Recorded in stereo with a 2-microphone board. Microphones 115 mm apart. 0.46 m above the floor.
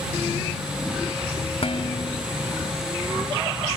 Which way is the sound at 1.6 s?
60° left (ahead or behind).